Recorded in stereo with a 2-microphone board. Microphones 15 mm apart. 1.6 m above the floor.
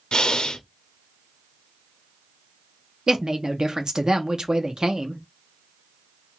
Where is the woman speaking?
55° right (ahead or behind), 0.7 m.